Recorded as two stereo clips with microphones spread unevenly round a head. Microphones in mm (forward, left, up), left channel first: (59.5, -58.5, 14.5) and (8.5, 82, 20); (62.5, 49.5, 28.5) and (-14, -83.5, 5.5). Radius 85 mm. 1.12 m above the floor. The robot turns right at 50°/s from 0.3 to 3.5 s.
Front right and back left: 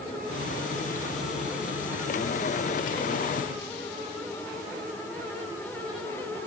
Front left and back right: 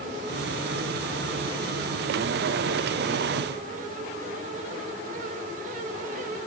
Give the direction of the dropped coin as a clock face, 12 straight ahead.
I don't hear a dropped coin.